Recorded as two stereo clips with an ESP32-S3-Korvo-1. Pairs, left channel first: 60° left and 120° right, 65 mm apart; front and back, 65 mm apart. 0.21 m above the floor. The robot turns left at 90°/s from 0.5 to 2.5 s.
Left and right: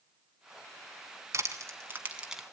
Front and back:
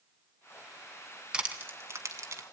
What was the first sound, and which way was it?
Crushing, 110° right.